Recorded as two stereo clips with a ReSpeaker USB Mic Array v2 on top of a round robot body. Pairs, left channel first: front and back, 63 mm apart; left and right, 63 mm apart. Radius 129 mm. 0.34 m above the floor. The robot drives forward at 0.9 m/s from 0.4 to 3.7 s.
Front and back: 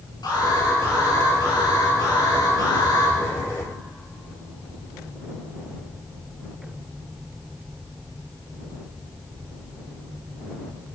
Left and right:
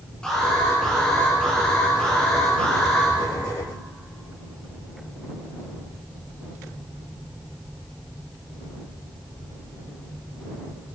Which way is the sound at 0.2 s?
10° left.